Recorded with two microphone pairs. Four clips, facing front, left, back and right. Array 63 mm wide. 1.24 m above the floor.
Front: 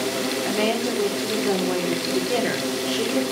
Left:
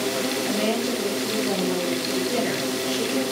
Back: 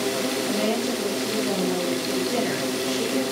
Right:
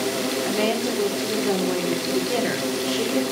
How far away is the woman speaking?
About 3.5 m.